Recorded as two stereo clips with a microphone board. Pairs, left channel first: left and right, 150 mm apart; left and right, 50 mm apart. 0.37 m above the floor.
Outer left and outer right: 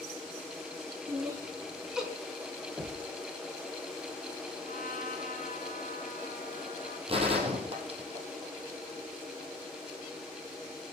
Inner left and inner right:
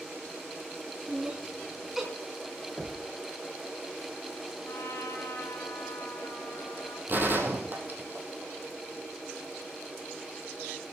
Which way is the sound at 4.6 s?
60° left (ahead or behind).